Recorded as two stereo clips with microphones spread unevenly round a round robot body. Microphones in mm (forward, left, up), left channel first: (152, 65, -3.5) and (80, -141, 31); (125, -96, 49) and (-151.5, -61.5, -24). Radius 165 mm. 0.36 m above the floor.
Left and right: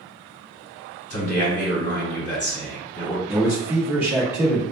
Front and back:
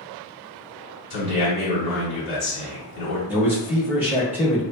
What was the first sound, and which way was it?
A man speaking, 65° left.